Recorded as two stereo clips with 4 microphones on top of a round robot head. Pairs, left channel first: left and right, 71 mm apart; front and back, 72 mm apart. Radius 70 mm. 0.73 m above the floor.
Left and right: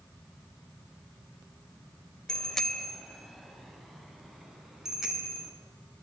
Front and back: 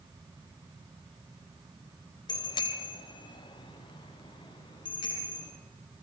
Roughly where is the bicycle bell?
Ahead.